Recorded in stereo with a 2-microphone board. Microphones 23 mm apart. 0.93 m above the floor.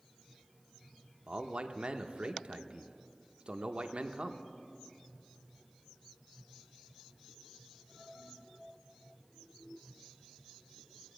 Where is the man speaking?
50° right (ahead or behind), 0.7 m.